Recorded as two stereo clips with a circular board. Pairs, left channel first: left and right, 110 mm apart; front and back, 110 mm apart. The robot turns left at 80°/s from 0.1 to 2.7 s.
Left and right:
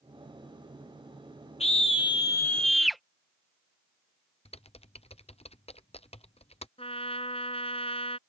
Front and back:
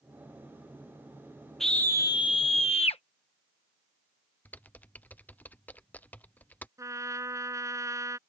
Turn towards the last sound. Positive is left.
turn(degrees=120)